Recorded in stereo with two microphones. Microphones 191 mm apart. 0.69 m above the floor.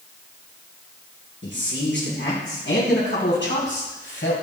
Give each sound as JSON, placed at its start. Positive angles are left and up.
{"t": 1.4, "sound": "a man speaking", "side_deg": 75, "distance_m": 7.5}